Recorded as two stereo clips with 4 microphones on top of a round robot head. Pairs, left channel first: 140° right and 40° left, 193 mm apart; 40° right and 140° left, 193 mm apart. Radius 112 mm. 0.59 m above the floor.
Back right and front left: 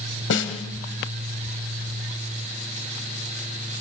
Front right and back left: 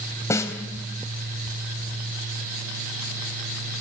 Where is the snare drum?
115° right, 2.5 m.